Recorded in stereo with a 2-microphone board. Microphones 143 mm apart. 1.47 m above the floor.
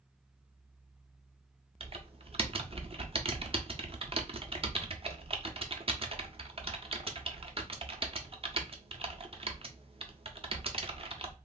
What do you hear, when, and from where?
1.8 s typing on a keyboard: 40° right (ahead or behind), 0.5 m